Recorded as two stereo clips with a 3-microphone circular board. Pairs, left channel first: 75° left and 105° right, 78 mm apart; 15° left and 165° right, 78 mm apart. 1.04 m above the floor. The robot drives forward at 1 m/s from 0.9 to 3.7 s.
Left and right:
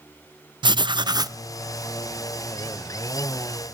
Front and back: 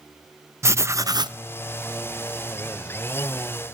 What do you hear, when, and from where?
0.6 s writing: 115° right, 0.5 m; by 1.4 s 145° right, 0.8 m